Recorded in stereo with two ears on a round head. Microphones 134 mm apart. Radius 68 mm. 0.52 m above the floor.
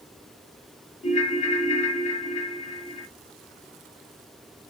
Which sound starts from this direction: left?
A ringtone, at 1.0 s.